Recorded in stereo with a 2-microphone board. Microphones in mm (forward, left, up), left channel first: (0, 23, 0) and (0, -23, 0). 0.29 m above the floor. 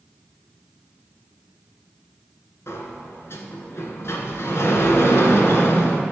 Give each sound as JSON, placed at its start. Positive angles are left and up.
{"t": 2.7, "sound": "a sliding door", "side_deg": 70, "distance_m": 1.2}